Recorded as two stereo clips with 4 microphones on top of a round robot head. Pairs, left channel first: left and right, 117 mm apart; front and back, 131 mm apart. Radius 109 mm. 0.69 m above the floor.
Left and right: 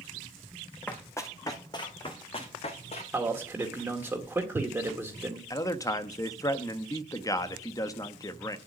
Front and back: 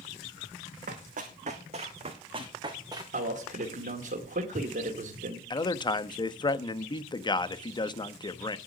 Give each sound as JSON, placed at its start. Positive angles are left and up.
{"t": 0.9, "sound": "running footsteps", "azimuth_deg": 165, "distance_m": 2.5}
{"t": 3.1, "sound": "a man speaking", "azimuth_deg": -160, "distance_m": 1.9}
{"t": 5.5, "sound": "a man speaking", "azimuth_deg": 40, "distance_m": 1.0}